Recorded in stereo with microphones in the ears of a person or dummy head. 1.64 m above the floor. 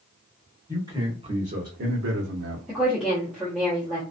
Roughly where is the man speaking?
Centre.